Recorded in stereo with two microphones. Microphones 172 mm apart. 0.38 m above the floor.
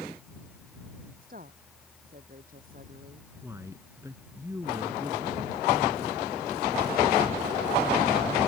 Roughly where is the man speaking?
Centre.